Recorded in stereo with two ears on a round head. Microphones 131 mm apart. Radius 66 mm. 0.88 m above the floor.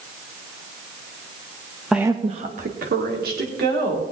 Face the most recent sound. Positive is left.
turn(degrees=-75)  # may be behind; listen again after turning